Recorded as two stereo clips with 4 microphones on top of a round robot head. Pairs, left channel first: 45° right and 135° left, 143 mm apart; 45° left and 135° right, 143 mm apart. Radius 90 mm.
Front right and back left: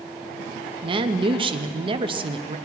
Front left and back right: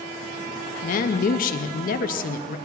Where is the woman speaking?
80° left, 0.8 m.